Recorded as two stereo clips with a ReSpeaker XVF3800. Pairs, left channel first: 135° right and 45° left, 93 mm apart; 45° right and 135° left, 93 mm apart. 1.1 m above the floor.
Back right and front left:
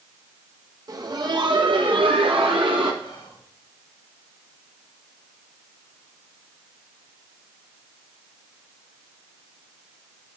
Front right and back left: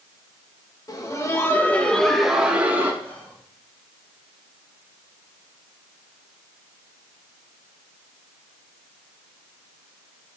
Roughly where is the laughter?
Ahead.